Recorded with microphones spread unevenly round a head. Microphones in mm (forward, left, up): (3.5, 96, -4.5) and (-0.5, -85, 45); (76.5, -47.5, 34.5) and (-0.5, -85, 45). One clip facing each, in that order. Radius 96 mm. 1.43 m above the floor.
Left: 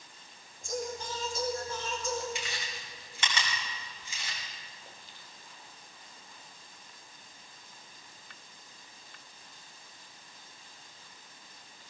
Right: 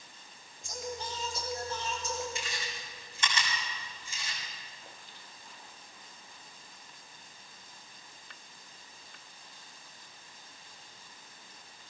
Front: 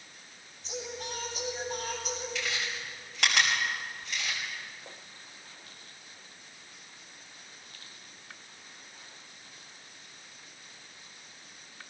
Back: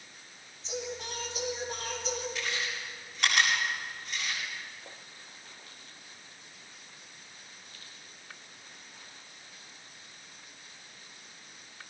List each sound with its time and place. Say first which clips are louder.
0.6 s singing: left 3 dB, back 1 dB; 135° left, 5.5 m
2.4 s chewing: even, even; 60° left, 5.5 m